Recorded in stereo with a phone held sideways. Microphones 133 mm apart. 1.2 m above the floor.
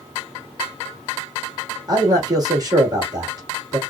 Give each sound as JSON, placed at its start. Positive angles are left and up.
{"t": 1.9, "sound": "a man speaking", "side_deg": -30, "distance_m": 1.7}